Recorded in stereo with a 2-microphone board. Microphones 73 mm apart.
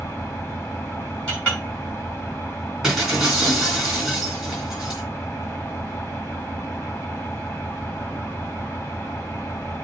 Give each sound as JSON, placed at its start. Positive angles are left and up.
{"t": 0.0, "sound": "an engine running", "side_deg": 25, "distance_m": 2.0}
{"t": 1.3, "sound": "a clink", "side_deg": 15, "distance_m": 4.0}
{"t": 2.8, "sound": "breaking glass", "side_deg": -5, "distance_m": 3.5}